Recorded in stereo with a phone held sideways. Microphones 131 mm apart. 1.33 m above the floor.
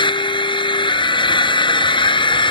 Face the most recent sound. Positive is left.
turn(degrees=40)  # may be behind; listen again after turning